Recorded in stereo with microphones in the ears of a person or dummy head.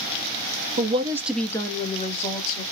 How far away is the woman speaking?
About 0.7 m.